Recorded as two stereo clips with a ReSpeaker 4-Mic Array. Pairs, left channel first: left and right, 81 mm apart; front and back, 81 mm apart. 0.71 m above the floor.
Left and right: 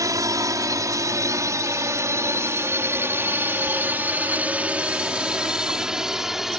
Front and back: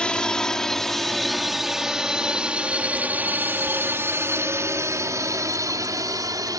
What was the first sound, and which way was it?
A drone, 75° right.